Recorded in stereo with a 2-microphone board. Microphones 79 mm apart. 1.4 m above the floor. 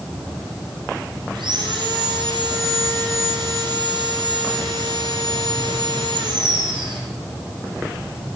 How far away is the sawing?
About 7 m.